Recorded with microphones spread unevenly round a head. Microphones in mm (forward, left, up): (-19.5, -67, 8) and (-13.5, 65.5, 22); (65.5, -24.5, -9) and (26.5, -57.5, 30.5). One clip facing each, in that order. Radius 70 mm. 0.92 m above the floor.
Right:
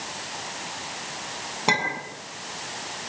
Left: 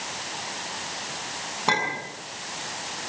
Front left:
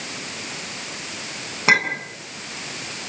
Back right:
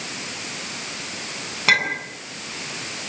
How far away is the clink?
About 7.5 m.